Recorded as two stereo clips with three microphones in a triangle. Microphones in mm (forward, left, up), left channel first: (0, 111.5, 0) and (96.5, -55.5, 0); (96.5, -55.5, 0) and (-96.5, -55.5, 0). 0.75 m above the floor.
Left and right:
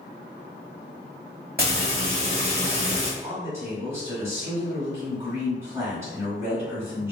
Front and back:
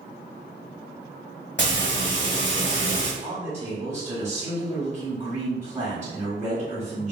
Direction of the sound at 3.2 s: 135° right.